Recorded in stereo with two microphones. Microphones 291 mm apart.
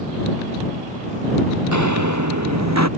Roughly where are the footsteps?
Right.